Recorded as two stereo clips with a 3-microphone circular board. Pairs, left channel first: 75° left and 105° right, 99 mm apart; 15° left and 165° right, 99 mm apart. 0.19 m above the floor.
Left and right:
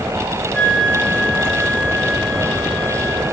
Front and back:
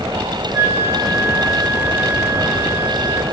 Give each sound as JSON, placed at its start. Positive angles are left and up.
{"t": 0.5, "sound": "a flute", "azimuth_deg": 145, "distance_m": 0.9}